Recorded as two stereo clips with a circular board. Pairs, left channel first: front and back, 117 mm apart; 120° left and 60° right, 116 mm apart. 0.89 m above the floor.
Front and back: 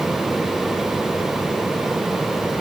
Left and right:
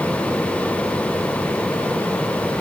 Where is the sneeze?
No sneeze in this recording.